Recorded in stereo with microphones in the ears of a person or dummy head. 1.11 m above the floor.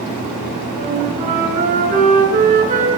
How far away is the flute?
About 7 m.